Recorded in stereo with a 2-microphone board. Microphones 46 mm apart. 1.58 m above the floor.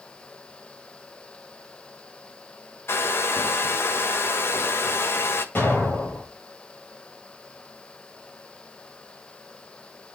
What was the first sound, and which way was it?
A hair dryer, 55° left (ahead or behind).